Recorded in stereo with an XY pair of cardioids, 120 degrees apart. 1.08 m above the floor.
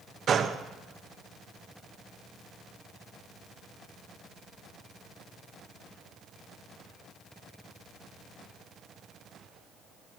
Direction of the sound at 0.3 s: 45° right.